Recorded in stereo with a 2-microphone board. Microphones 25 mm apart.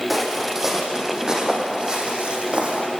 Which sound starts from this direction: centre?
Footsteps, at 0.1 s.